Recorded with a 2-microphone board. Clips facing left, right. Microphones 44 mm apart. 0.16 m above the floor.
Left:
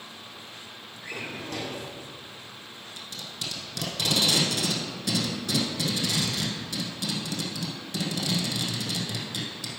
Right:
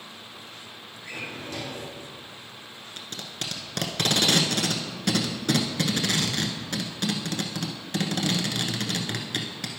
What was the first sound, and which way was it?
A drawer, 65° left (ahead or behind).